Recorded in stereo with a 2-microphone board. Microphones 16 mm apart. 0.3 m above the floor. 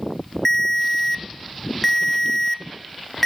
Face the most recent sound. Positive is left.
turn(degrees=20)  # may be behind; listen again after turning